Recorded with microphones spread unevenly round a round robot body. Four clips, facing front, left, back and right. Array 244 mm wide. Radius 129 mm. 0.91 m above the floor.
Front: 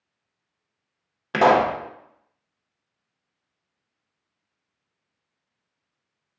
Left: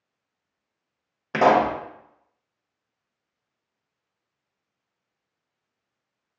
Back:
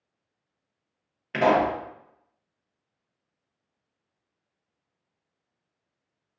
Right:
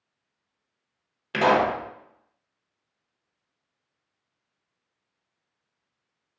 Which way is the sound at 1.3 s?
30° left.